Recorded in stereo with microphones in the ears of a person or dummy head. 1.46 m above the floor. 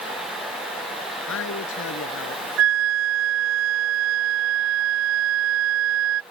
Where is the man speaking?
85° left; by 2.5 s 80° left.